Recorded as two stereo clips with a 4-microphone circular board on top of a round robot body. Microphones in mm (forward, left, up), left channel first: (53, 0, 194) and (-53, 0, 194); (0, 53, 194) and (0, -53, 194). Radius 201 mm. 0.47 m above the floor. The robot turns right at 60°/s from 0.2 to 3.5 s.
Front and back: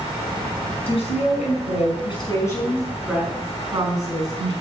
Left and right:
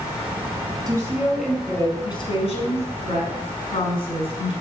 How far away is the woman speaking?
About 5.5 m.